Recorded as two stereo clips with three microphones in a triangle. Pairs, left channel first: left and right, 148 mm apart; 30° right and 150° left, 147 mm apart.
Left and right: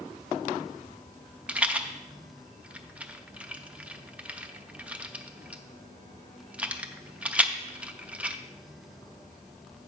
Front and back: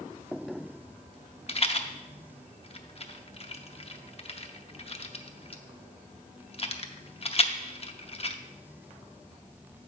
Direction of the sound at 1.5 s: 10° right.